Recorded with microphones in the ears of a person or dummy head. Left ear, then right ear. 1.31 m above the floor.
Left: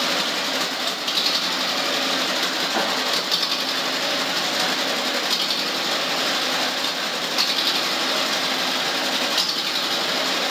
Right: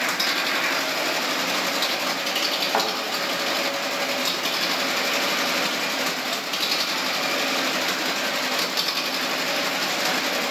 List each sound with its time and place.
2.7 s a thud: 55° right (ahead or behind), 2 m